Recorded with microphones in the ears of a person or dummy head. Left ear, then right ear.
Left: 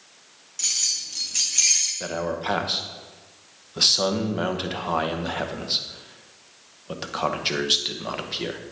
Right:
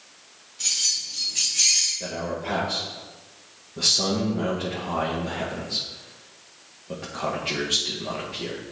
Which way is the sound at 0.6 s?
45° left (ahead or behind).